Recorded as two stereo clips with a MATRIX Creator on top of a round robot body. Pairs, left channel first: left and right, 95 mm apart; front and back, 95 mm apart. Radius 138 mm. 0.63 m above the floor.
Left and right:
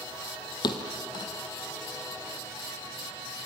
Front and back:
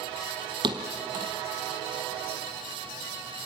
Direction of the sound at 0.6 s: 140° left.